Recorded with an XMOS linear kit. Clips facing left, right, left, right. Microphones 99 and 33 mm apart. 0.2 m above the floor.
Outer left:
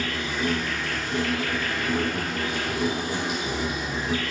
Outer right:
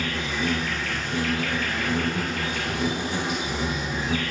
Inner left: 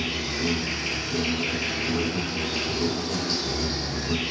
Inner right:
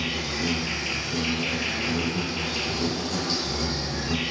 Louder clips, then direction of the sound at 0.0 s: Even, even; 5° left (ahead or behind).